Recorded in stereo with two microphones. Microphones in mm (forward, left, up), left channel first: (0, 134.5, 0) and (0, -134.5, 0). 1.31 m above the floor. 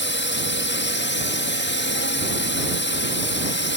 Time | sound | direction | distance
0.0 | a drone | 40° left (ahead or behind) | ?